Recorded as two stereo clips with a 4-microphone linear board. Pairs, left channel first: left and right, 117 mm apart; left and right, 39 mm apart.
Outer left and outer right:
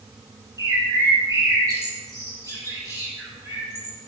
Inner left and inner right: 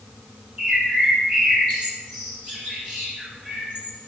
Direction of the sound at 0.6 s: 25° right (ahead or behind).